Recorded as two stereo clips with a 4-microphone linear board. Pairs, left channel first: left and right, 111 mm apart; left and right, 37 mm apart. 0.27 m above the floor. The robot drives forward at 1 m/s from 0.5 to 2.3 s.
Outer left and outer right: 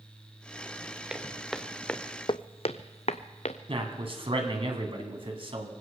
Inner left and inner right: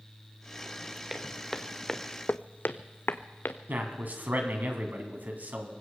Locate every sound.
1.1 s footsteps: 5° right (ahead or behind), 1.8 m; by 3.6 s 80° left, 1.1 m
3.7 s a man speaking: 55° right (ahead or behind), 2.5 m